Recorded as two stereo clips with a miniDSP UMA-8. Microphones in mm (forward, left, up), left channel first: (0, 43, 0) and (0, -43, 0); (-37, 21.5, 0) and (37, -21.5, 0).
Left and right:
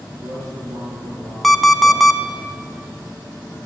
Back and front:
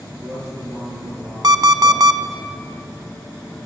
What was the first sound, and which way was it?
A man speaking, 85° right.